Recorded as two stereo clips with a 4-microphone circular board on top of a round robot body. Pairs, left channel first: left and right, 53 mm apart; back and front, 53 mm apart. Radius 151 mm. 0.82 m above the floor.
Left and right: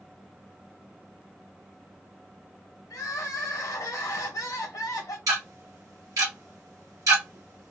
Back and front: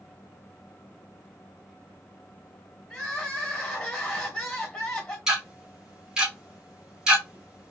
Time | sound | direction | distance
2.9 | crying | 100° left | 1.0 m
5.3 | ticking | 80° right | 2 m